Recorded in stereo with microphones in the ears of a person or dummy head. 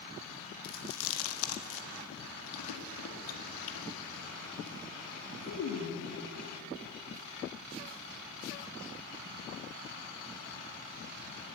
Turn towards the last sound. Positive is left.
turn(degrees=75)  # may be behind; listen again after turning